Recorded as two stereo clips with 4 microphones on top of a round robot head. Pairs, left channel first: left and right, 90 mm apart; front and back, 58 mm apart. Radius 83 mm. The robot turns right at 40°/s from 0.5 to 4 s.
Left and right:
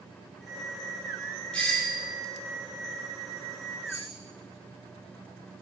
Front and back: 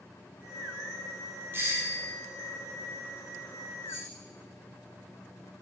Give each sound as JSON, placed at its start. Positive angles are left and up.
{"t": 1.5, "sound": "a doorbell", "azimuth_deg": 160, "distance_m": 1.6}
{"t": 3.9, "sound": "keys jangling", "azimuth_deg": -150, "distance_m": 4.0}